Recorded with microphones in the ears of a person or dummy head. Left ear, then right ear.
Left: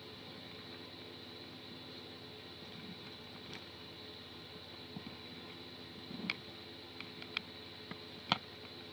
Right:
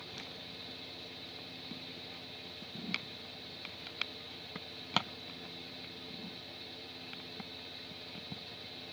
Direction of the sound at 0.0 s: 30° right (ahead or behind).